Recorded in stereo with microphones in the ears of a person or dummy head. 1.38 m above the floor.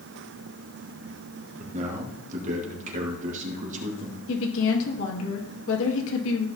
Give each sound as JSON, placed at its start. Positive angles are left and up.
{"t": 1.6, "sound": "a man speaking", "side_deg": -45, "distance_m": 2.0}
{"t": 4.3, "sound": "a woman speaking", "side_deg": 70, "distance_m": 2.5}